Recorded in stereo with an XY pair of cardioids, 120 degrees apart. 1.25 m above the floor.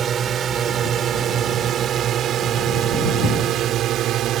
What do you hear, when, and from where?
0.0 s a drone: 50° right; by 4.4 s 70° right